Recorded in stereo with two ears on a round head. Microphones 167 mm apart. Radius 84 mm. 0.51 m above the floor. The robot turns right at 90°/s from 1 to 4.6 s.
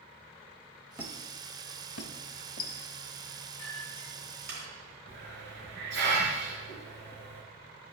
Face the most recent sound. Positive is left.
turn(degrees=-70)  # may be behind; listen again after turning